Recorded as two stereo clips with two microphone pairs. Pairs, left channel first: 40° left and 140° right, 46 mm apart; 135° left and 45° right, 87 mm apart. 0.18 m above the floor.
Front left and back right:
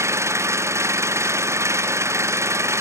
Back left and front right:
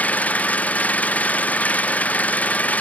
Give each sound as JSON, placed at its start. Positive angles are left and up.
{"t": 0.0, "sound": "an engine running", "azimuth_deg": -155}